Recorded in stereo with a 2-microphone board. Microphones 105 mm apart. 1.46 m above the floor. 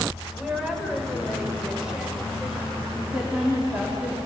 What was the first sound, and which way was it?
A woman speaking, 5° right (ahead or behind).